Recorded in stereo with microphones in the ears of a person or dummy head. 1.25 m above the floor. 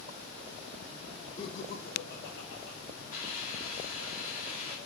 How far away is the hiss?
About 2 m.